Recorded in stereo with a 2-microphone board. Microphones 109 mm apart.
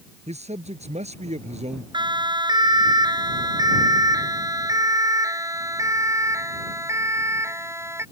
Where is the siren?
45° right (ahead or behind); by 8.0 s 25° right (ahead or behind).